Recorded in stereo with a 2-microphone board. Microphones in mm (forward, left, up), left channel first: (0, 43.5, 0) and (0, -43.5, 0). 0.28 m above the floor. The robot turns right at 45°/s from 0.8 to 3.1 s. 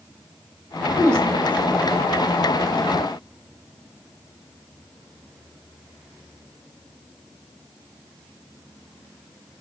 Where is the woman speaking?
40° right (ahead or behind), 2.5 m; by 2.6 s 25° left (ahead or behind), 2.5 m.